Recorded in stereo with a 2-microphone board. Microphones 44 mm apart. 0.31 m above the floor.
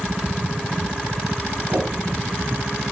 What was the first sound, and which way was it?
A whoosh, 60° right (ahead or behind).